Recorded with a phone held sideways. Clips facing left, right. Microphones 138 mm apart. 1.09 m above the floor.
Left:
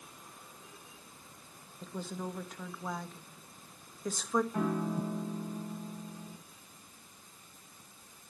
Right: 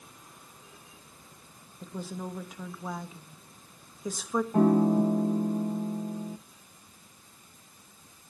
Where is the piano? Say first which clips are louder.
Right 11 dB; 45° right (ahead or behind), 0.6 m.